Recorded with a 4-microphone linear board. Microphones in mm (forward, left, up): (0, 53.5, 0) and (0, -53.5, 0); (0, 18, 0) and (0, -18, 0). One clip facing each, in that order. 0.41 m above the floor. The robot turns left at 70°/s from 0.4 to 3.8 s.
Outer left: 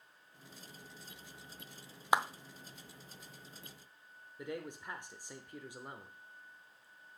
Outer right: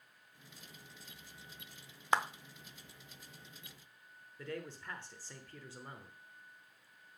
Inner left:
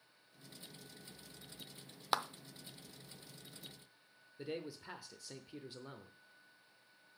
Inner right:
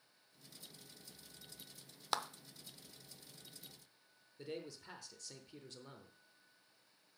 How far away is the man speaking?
About 0.9 m.